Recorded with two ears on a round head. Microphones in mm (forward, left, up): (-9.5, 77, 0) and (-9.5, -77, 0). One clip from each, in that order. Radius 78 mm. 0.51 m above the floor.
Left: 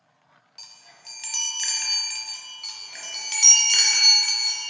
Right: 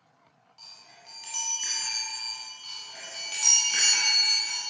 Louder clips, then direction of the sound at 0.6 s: Left 3 dB; 50° left (ahead or behind).